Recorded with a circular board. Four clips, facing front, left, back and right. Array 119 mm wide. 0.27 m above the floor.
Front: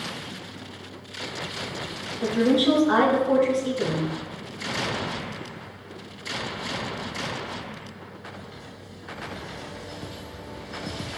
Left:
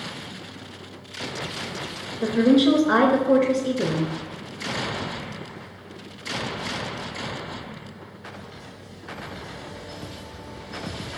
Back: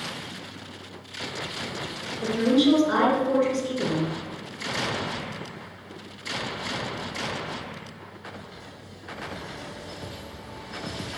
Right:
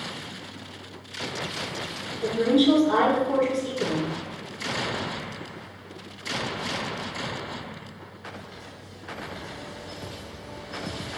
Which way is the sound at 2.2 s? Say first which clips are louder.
Left 3 dB, even; 75° left.